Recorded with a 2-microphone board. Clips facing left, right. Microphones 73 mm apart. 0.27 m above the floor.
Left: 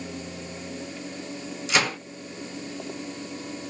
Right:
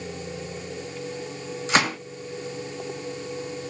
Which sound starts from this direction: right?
A gunshot, at 1.7 s.